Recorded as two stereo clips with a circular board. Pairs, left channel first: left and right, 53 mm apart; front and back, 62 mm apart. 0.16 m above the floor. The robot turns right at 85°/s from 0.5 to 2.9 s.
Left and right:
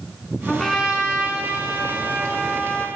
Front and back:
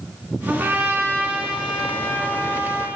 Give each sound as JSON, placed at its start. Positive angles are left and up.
{"t": 0.5, "sound": "a trumpet", "azimuth_deg": 165, "distance_m": 1.3}